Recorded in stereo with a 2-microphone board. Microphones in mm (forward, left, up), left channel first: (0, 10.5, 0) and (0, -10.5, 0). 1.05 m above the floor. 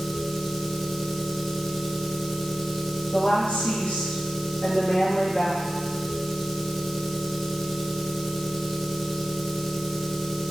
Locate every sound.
0.0 s an engine running: 10° left (ahead or behind), 0.8 m
3.1 s a woman speaking: 75° left (ahead or behind), 2 m